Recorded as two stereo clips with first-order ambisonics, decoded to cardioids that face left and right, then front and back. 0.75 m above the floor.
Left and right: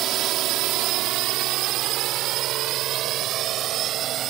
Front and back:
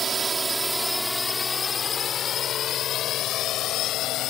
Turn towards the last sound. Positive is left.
turn(degrees=-40)